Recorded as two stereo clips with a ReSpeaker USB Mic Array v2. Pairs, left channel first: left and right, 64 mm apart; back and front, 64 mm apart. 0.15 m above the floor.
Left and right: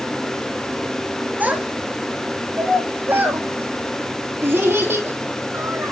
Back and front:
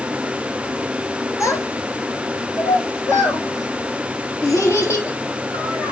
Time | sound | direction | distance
1.4 | a child speaking | 155° right | 1.7 m